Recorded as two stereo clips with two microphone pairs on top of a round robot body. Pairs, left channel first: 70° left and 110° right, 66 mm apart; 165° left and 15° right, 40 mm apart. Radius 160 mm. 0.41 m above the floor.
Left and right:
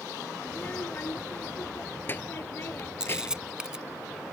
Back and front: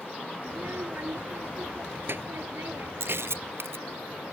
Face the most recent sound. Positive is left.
turn(degrees=-30)